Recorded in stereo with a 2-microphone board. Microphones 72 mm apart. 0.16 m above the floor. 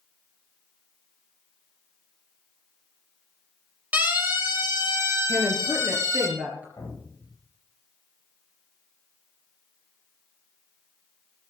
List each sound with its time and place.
3.9 s a siren: 25° right (ahead or behind), 4.5 m; by 6.3 s 40° right (ahead or behind), 6 m
5.3 s a woman speaking: 20° right (ahead or behind), 3.5 m
6.8 s an explosion: 40° left (ahead or behind), 8.5 m